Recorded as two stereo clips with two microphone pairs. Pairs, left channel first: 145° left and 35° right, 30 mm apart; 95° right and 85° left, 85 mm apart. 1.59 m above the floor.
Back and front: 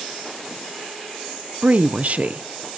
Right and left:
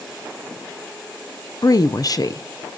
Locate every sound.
1.6 s a woman speaking: 55° right, 0.8 m